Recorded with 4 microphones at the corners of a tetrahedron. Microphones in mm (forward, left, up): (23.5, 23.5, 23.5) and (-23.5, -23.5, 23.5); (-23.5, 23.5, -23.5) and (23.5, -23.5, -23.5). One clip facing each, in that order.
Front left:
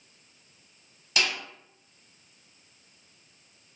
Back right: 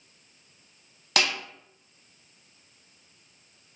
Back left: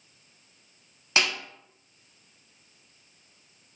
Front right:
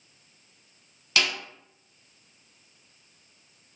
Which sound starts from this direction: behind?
A snare drum, at 1.2 s.